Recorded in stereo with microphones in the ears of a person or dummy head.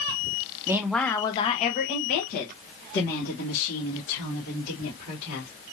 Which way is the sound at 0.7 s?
20° right (ahead or behind).